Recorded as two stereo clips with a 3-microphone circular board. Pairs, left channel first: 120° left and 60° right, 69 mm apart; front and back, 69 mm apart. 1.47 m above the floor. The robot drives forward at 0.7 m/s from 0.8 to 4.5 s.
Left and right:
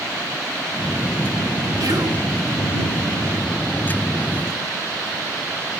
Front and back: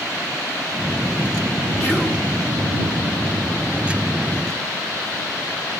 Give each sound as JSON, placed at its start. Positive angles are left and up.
{"t": 1.8, "sound": "whispering", "azimuth_deg": -65, "distance_m": 1.6}